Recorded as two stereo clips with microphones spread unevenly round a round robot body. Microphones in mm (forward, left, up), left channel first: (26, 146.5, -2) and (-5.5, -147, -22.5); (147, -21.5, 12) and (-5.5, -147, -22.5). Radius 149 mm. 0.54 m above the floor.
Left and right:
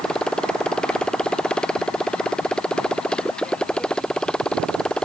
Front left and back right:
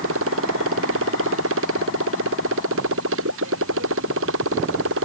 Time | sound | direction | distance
0.0 | a motorcycle | 170° left | ?